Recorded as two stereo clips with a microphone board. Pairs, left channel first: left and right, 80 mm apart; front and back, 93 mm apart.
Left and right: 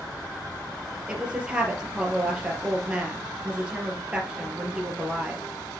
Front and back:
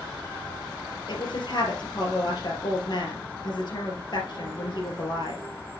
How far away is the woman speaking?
About 2.5 m.